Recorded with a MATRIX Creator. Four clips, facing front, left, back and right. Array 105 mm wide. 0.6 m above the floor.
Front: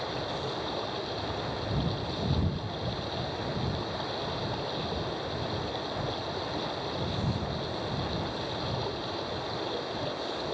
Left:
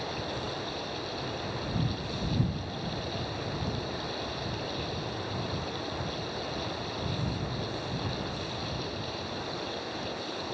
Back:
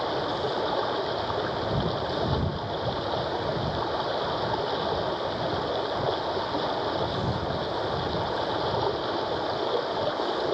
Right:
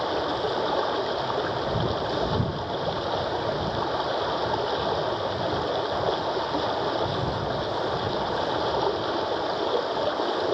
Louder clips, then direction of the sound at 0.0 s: Right 10 dB, back 6 dB; 120° right.